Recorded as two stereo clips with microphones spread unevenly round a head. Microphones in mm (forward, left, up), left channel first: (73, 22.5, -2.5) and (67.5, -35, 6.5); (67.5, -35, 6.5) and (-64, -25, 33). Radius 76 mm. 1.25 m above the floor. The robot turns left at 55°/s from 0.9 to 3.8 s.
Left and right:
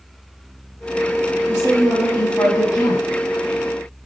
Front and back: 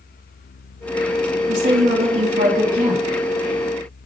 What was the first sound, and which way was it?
A woman speaking, 150° right.